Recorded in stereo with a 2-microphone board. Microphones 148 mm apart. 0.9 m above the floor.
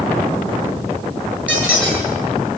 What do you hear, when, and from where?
1.5 s a squeak: 5° right (ahead or behind), 7.5 m